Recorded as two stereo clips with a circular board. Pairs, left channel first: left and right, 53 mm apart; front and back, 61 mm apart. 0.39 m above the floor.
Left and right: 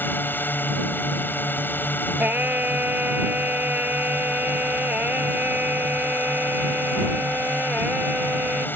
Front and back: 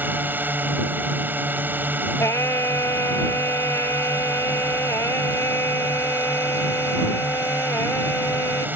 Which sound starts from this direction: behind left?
A drone, at 0.0 s.